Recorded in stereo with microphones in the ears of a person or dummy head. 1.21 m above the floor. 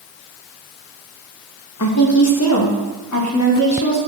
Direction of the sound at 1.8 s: 75° left (ahead or behind).